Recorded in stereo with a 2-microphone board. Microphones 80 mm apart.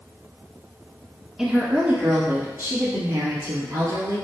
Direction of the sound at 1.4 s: 5° right (ahead or behind).